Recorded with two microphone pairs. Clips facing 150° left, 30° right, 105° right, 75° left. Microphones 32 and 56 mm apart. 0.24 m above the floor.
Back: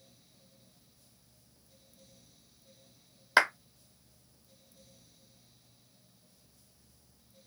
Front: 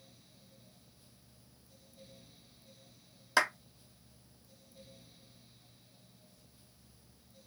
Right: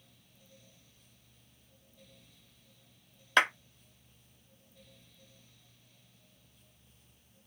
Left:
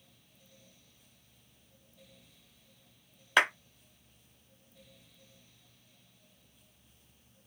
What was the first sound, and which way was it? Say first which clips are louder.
A clap: back 4 dB, even; 155° left.